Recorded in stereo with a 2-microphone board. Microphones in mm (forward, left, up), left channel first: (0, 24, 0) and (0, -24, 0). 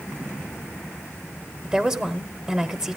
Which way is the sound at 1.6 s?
15° right (ahead or behind).